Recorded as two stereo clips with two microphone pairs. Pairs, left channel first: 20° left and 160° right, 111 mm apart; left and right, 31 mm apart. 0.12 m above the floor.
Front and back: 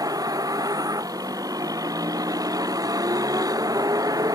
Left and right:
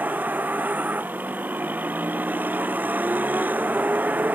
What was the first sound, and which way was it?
A vehicle, 105° right.